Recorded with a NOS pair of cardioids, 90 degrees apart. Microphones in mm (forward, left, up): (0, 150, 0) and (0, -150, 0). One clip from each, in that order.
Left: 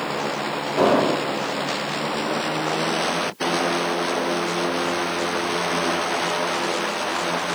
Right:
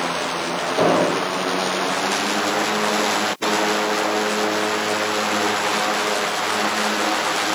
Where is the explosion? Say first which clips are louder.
Even; straight ahead, 1.0 m.